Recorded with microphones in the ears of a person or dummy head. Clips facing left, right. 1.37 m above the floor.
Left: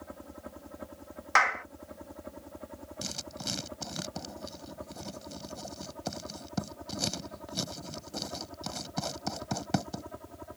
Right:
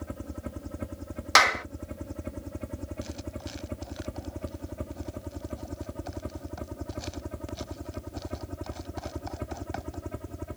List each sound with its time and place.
0.0 s a helicopter: 40° right (ahead or behind)
1.4 s a clap: 55° right (ahead or behind)
3.0 s writing: 70° left (ahead or behind)